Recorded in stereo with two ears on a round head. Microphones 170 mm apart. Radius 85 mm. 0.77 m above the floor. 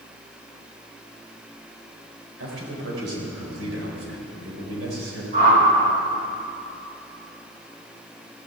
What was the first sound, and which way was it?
A man speaking, 75° right (ahead or behind).